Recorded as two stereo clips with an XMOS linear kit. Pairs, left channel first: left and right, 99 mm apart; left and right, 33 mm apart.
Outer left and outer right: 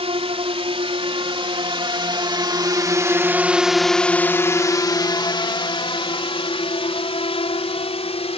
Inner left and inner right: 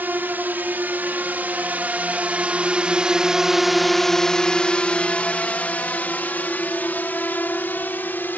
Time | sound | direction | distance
0.0 | a drone | 70° right (ahead or behind) | ?